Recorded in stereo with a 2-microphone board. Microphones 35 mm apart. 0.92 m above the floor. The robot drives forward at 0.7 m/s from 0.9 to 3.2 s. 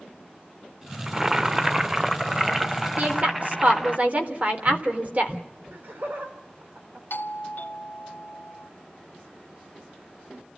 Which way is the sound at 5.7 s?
65° right (ahead or behind).